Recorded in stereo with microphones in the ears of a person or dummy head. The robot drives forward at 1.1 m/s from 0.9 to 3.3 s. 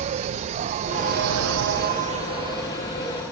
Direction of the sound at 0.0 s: 40° right (ahead or behind).